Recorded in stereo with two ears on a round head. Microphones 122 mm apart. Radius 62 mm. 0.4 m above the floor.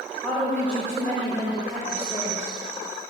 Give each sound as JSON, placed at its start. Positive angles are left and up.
{"t": 0.2, "sound": "a woman speaking", "side_deg": 10, "distance_m": 1.4}